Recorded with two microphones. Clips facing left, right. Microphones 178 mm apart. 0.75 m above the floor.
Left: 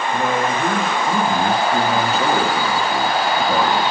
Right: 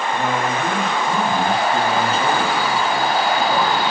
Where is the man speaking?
15° left (ahead or behind), 0.9 m.